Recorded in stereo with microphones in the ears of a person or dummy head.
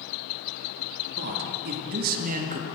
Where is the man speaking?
60° right (ahead or behind), 3 m; by 2.6 s 45° right (ahead or behind), 1.9 m.